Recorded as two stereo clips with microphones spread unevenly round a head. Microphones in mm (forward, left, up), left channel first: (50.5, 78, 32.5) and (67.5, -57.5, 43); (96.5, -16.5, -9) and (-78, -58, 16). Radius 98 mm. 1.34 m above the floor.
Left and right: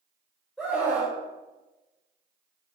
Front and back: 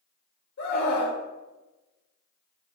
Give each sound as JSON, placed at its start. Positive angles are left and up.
{"t": 0.6, "sound": "a scream", "azimuth_deg": 10, "distance_m": 3.5}